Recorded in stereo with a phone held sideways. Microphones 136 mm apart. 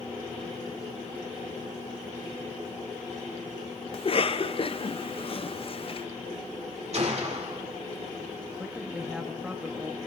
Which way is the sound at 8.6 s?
5° right (ahead or behind).